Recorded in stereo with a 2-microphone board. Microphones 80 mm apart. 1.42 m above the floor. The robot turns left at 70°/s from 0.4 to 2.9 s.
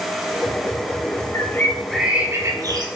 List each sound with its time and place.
1.3 s a bird: 45° left, 4 m; by 2.9 s 60° right, 4 m